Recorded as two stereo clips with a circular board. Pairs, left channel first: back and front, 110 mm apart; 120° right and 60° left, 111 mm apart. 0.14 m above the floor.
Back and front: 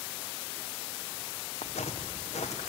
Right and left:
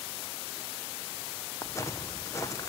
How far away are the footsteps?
About 1.4 m.